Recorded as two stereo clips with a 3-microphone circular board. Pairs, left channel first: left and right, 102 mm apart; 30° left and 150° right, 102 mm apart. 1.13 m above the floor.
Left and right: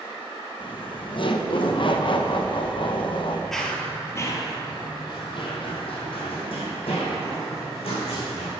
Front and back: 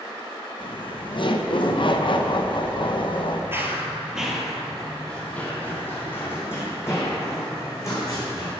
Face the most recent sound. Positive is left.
turn(degrees=90)